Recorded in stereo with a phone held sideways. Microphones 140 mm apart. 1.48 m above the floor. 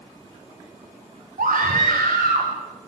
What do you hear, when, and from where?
1.4 s a scream: 90° right, 6 m; by 2.5 s 80° right, 7.5 m